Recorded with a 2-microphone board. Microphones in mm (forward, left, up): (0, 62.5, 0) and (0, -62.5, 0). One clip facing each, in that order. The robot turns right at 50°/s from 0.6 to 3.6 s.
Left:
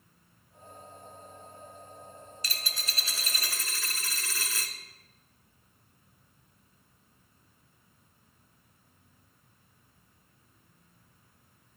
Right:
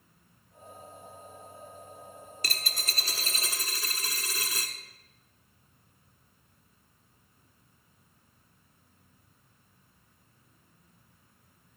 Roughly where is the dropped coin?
Right.